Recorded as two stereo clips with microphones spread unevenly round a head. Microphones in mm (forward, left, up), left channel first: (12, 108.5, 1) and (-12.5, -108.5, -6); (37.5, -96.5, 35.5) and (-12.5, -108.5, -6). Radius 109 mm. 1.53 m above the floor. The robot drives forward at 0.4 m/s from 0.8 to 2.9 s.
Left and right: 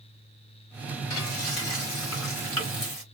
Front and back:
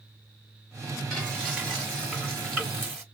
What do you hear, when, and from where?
1.1 s frying: 105° left, 3 m; by 3.0 s 115° left, 3.5 m